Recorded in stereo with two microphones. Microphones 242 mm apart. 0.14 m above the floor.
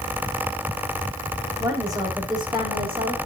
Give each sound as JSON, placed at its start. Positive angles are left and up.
{"t": 1.6, "sound": "a woman speaking", "side_deg": -15, "distance_m": 6.5}